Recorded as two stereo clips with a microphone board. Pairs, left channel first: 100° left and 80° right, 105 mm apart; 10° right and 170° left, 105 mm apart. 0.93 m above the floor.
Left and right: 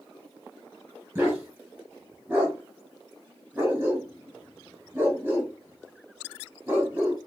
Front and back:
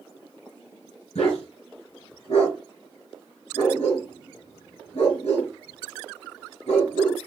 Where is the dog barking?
10° right, 2.5 m.